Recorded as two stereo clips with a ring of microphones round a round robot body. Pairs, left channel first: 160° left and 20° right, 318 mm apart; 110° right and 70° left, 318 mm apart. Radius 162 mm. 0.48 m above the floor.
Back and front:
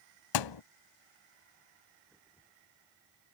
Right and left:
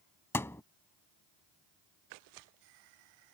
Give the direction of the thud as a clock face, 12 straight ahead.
6 o'clock.